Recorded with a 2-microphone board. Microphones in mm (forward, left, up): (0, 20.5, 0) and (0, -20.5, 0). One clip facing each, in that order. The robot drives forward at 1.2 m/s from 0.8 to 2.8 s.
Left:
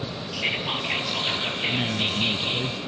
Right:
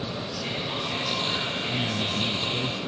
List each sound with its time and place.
0.3 s whispering: 65° left (ahead or behind), 3.5 m; by 2.7 s 45° left (ahead or behind), 4.5 m
1.7 s a man speaking: 25° left (ahead or behind), 1.2 m; by 2.8 s 15° left (ahead or behind), 1.9 m